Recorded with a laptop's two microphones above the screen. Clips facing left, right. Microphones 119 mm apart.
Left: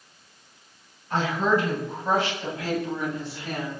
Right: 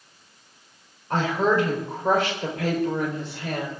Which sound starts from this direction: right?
A woman speaking, at 1.1 s.